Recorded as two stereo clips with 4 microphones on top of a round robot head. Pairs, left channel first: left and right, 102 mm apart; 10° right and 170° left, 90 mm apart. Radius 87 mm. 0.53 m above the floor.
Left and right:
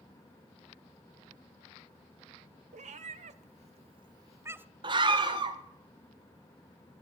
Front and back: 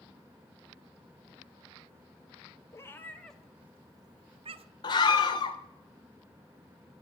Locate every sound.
2.7 s a cat meowing: 75° right, 1.2 m; by 4.7 s 165° right, 1.0 m
4.8 s a scream: 45° right, 2 m